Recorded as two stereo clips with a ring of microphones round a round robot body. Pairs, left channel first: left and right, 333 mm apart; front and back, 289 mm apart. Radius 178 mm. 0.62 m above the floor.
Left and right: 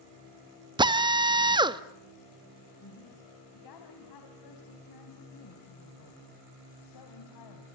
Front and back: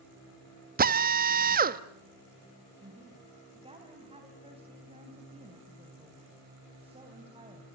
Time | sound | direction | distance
0.8 | a drill | 155° right | 1.1 m
2.8 | a woman speaking | 110° left | 4 m